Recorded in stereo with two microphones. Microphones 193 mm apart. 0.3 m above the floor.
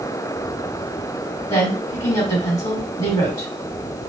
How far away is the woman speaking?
About 2 m.